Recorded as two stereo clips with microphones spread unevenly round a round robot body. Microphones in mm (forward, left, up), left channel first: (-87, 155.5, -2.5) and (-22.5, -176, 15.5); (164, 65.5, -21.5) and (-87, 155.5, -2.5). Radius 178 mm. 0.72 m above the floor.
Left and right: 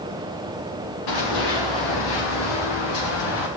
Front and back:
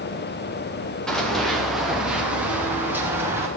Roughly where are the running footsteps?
Left.